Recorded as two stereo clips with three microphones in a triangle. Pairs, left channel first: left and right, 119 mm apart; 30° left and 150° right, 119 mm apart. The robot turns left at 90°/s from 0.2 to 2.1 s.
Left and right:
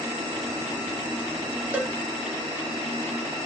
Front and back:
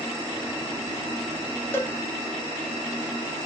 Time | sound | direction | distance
1.7 | a cowbell | 25° right | 0.5 m